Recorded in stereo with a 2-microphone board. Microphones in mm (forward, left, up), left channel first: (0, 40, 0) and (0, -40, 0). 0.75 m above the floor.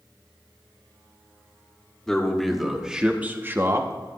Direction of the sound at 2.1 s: 5° left (ahead or behind).